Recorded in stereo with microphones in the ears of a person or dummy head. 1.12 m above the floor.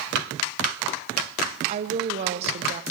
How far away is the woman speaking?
About 0.6 m.